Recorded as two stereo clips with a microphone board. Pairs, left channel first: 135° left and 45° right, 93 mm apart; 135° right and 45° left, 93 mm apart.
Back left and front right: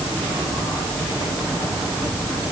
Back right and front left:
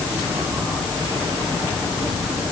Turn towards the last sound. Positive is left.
No sound to turn to.